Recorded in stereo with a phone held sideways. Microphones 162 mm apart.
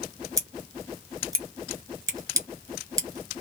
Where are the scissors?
20° right (ahead or behind), 1.1 m.